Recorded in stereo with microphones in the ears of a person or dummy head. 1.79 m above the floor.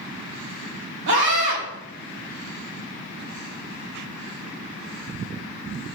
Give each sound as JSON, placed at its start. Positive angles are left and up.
{"t": 1.1, "sound": "a scream", "side_deg": -70, "distance_m": 2.5}